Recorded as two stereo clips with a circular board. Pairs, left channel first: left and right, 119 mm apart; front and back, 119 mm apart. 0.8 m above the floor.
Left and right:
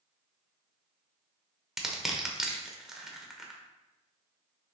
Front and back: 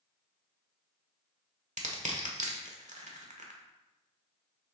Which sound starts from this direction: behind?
Crushing, at 1.8 s.